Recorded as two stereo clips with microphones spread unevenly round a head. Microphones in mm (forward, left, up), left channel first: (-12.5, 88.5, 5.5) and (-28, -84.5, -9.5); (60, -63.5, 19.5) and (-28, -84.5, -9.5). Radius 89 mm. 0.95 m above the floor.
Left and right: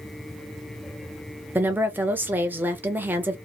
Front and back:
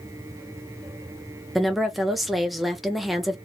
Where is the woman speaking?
140° right, 0.7 m.